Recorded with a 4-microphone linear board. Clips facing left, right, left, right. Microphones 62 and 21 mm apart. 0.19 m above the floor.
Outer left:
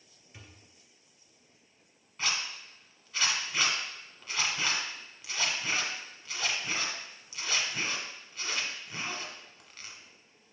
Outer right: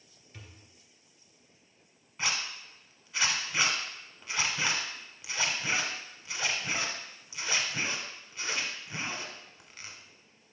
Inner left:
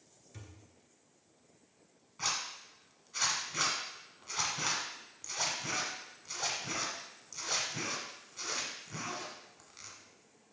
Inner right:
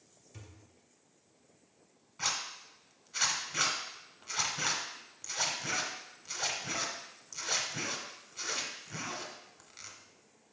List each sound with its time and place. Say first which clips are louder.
0.3 s a thud: outer right 1 dB, even; 10° left (ahead or behind), 1.4 m
2.2 s a zipper: even, inner right 1 dB; 10° right (ahead or behind), 1.4 m